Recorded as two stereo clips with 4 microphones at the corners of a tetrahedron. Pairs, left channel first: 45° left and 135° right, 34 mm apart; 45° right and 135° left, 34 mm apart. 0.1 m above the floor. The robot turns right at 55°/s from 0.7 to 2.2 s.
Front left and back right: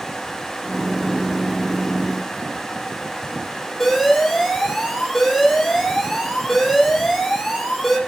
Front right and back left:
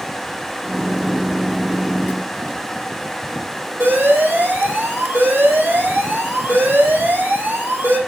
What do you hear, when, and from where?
3.8 s an alarm: 125° left, 6 m